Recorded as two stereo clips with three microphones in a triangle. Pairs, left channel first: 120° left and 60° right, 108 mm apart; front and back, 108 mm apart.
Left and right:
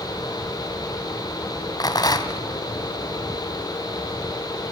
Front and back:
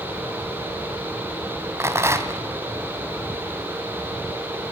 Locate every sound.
1.8 s a rattle: 135° left, 1.5 m